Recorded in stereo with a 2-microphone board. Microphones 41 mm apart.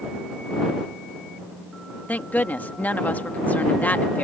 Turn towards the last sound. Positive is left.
turn(degrees=45)  # may be behind; listen again after turning